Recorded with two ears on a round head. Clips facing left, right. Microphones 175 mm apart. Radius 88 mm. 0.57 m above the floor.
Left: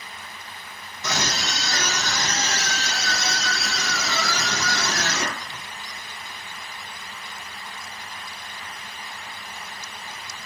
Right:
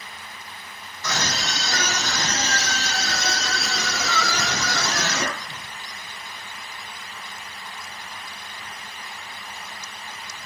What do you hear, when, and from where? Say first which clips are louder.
1.0 s a scream: even; 20° left (ahead or behind), 0.9 m; by 5.6 s 65° right (ahead or behind), 2.5 m